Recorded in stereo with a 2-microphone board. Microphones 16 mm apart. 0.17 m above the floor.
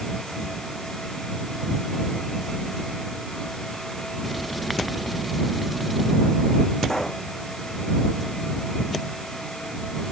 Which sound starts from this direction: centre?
Writing, at 4.2 s.